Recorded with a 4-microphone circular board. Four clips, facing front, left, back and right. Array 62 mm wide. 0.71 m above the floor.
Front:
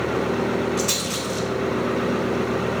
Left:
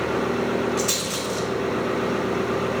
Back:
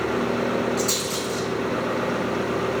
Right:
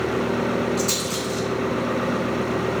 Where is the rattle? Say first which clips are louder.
Right 1 dB, even; 50° left, 2 m.